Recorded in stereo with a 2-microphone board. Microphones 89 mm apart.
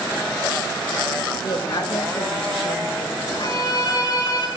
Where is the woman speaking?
55° left (ahead or behind), 2.5 m; by 3.7 s 75° left (ahead or behind), 2 m.